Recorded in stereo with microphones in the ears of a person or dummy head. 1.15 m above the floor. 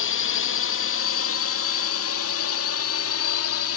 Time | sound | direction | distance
0.0 | a drone | 60° left (ahead or behind) | ?